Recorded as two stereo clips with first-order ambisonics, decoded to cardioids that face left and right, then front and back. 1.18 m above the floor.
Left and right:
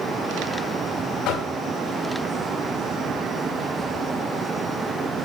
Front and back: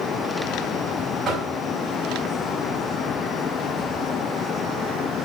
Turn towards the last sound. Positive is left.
turn(degrees=115)